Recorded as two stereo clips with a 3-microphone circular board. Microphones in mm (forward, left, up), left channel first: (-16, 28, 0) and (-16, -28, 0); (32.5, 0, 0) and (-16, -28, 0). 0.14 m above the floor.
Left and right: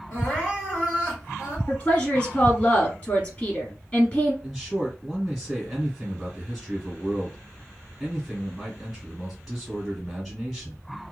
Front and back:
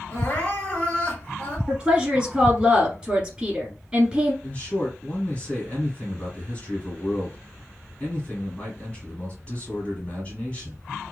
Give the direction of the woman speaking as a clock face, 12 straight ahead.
7 o'clock.